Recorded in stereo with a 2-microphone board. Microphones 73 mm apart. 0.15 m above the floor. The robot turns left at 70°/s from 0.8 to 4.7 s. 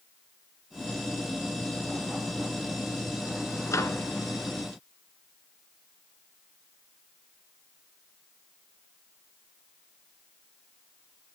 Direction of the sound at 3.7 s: 45° left (ahead or behind).